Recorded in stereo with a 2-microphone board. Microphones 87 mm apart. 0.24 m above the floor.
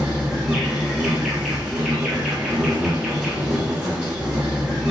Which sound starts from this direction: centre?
An insect, at 0.0 s.